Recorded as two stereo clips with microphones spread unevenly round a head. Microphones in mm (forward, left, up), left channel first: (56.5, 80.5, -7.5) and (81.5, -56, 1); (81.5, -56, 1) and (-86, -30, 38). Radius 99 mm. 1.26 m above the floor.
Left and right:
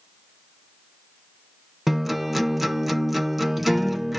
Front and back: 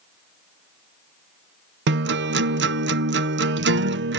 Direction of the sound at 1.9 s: 170° right.